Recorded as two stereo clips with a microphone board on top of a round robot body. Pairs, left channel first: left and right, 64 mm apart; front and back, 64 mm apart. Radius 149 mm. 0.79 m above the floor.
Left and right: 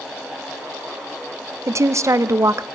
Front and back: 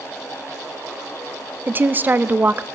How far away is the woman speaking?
About 0.6 m.